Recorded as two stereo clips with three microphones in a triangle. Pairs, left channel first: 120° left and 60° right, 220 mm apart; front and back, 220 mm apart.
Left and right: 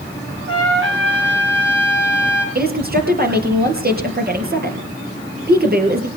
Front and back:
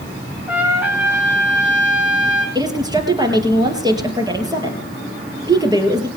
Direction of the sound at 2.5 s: 105° right.